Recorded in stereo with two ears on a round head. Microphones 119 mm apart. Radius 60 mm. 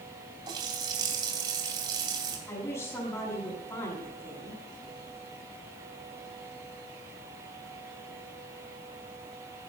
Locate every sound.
0.5 s a running tap: 35° right (ahead or behind), 3 m
2.5 s a woman speaking: 25° left (ahead or behind), 7.5 m